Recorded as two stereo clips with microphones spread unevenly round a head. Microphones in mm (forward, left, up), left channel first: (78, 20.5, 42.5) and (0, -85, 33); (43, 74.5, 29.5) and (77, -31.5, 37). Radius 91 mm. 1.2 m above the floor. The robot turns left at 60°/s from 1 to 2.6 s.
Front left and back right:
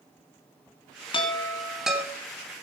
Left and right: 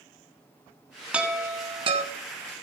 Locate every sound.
1.1 s a chime: 5° left, 3 m; by 2.0 s 45° right, 3 m